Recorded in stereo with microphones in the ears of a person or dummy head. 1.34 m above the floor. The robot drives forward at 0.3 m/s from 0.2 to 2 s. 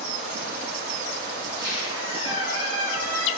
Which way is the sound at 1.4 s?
25° right (ahead or behind).